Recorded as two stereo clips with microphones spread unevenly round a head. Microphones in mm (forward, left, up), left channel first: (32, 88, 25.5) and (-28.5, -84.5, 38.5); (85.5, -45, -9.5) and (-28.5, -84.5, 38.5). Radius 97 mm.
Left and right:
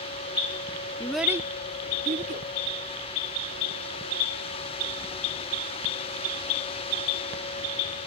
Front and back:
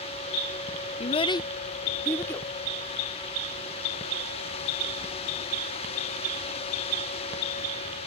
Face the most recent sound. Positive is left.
turn(degrees=-60)